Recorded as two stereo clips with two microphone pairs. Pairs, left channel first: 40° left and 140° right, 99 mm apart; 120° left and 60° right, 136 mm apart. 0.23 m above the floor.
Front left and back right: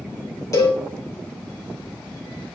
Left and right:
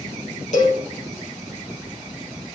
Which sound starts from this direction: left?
A cowbell, at 0.5 s.